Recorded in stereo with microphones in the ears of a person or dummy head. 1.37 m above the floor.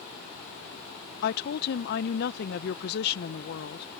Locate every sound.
1.2 s a woman speaking: 60° left (ahead or behind)